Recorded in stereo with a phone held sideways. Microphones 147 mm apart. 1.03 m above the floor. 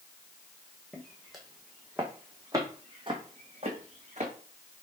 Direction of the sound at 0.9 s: 5° left (ahead or behind).